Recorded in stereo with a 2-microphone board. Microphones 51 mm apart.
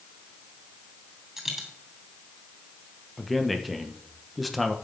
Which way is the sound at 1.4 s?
5° right (ahead or behind).